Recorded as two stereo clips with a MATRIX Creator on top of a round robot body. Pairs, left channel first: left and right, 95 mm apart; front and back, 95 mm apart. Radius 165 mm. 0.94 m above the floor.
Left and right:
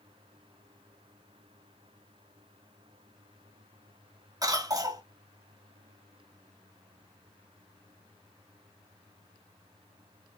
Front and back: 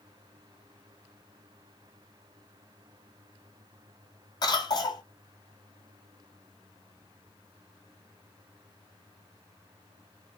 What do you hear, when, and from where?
4.4 s a cough: 40° right, 1.6 m